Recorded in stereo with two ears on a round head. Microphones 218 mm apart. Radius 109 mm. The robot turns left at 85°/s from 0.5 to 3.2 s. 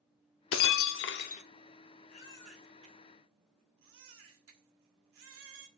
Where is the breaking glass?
110° left, 0.7 m; by 1.4 s 30° left, 0.7 m.